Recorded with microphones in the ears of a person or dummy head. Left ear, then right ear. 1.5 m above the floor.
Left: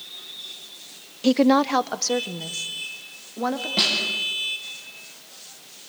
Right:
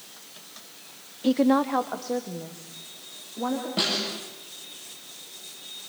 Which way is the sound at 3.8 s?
20° left (ahead or behind).